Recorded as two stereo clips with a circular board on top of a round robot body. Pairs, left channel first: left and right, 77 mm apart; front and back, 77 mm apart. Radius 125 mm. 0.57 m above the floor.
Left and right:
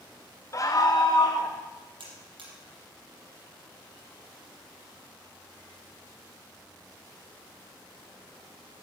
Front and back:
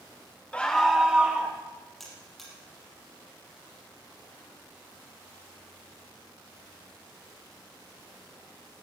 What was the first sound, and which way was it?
A scream, 70° left.